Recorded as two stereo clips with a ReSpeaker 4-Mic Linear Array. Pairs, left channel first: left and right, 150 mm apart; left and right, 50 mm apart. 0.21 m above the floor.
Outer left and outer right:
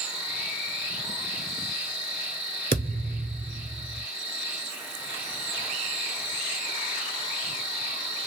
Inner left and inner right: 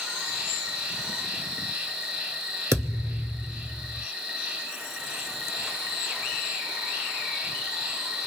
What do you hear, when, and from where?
0.0 s an insect: 15° right (ahead or behind), 1.4 m
2.7 s a thud: 70° right (ahead or behind), 0.8 m